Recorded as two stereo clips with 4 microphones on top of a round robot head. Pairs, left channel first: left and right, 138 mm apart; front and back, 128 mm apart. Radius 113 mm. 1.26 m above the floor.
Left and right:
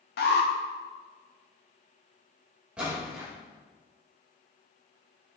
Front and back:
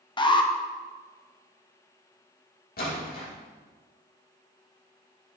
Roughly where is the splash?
Ahead.